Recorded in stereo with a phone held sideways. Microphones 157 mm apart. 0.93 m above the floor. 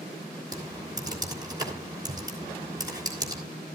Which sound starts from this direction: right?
Typing on a keyboard, at 0.5 s.